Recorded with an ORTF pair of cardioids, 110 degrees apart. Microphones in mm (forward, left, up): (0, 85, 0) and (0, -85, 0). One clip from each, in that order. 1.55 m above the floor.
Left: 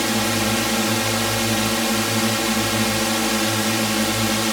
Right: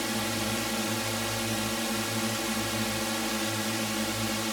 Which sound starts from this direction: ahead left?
A drone, at 0.0 s.